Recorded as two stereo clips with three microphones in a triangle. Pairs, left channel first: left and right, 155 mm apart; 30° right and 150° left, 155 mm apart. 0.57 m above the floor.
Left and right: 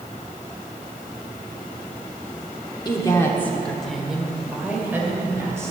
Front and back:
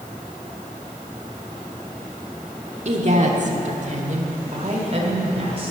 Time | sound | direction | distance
2.9 | a woman speaking | 140° left | 1.2 m